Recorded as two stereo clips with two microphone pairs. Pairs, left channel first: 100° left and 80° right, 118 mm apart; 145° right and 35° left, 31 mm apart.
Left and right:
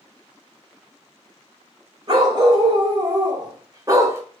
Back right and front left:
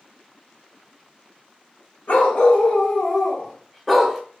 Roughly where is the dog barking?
Behind right.